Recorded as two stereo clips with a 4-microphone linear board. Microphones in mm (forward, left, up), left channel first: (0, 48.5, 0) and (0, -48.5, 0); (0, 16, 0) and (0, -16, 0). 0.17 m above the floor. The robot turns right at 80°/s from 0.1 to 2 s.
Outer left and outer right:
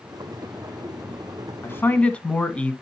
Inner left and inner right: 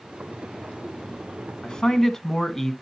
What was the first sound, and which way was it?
A man speaking, 25° left (ahead or behind).